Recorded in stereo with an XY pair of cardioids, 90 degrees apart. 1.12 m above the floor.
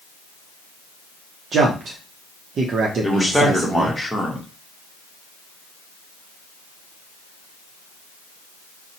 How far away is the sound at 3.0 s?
About 1.1 m.